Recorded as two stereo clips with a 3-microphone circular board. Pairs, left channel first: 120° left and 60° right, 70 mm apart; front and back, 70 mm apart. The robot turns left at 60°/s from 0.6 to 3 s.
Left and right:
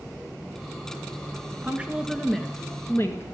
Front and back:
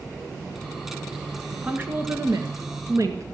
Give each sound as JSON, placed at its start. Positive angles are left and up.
{"t": 1.6, "sound": "a woman speaking", "azimuth_deg": -110, "distance_m": 1.8}